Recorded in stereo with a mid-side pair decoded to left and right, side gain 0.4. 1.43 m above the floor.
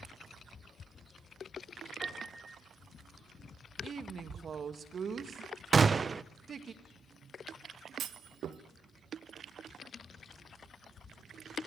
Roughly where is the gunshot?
Ahead right.